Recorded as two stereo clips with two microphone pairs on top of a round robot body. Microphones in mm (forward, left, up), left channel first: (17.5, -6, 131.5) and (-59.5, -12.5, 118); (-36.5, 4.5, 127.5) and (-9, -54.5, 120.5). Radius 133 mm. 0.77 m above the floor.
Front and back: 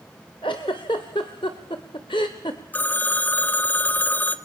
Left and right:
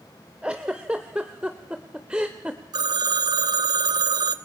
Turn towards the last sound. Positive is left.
turn(degrees=-65)